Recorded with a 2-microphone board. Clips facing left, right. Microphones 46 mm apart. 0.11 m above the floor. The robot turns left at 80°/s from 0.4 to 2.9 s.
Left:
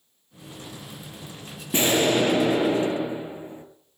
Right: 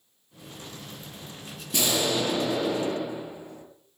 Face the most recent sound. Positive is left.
turn(degrees=40)